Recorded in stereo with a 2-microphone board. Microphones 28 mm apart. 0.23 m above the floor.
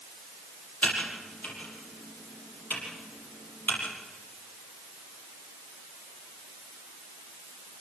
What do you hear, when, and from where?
0.8 s typing on a keyboard: 60° left (ahead or behind), 7 m